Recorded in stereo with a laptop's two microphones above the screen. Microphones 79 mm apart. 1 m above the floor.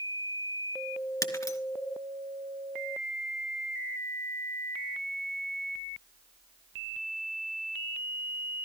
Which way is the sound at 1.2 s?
45° left (ahead or behind).